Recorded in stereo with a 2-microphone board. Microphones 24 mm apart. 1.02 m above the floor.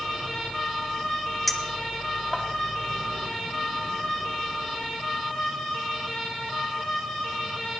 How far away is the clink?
About 1.6 m.